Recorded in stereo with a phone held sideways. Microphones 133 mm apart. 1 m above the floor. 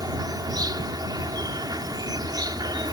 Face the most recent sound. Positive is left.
turn(degrees=-30)  # may be behind; listen again after turning